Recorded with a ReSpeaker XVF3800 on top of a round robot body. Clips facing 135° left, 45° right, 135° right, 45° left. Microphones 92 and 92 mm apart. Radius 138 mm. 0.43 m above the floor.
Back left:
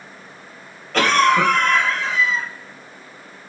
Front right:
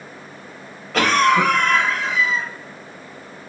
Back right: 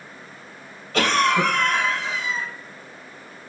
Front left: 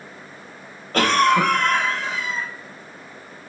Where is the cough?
40° left, 1.0 m.